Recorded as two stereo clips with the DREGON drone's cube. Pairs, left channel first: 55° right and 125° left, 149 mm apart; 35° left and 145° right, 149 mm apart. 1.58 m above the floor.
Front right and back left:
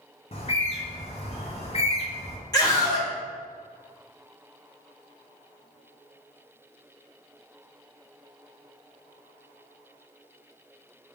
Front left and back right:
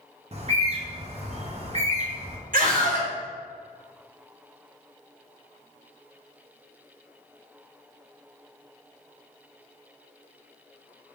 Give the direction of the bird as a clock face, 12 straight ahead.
3 o'clock.